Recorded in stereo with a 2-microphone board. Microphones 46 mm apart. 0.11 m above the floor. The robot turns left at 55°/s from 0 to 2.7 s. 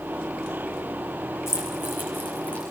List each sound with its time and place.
1.5 s keys jangling: 80° left, 8 m; by 2.7 s 20° left (ahead or behind), 8 m